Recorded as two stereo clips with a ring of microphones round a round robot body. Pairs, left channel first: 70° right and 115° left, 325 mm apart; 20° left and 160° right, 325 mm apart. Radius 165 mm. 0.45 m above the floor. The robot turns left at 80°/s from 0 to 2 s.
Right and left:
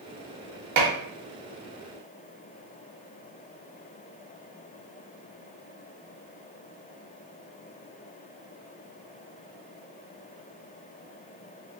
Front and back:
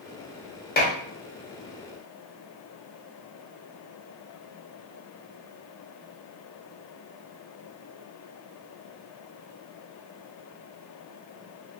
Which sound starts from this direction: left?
Dishes clattering, at 0.8 s.